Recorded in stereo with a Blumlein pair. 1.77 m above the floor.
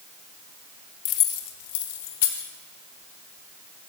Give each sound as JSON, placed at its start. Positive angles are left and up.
{"t": 1.1, "sound": "keys jangling", "azimuth_deg": 40, "distance_m": 1.9}